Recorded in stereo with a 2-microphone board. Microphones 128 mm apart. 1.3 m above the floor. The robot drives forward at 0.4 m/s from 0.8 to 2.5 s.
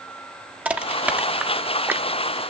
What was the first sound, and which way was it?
Crushing, 10° right (ahead or behind).